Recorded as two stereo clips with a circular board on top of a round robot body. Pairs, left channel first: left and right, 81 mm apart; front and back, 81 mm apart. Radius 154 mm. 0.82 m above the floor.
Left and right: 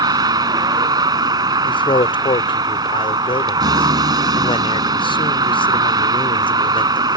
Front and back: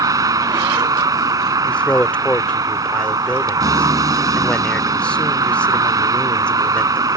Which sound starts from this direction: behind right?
A vehicle, at 0.0 s.